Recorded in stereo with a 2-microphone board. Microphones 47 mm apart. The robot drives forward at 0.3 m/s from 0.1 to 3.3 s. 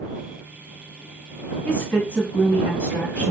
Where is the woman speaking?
30° left (ahead or behind), 1.4 m.